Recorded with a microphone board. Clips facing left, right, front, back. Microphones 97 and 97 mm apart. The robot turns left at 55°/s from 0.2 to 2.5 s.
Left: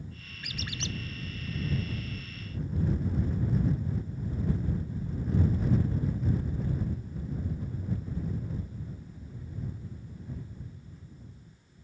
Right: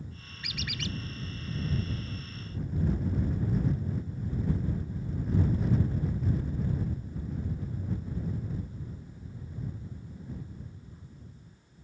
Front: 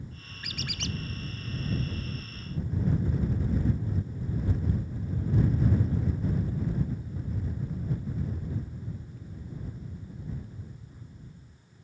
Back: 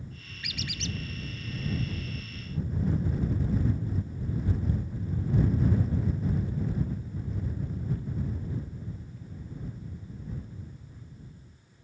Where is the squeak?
45° left; by 1.0 s 20° left.